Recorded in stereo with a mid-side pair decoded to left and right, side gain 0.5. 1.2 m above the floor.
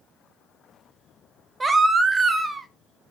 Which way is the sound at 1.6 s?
30° right.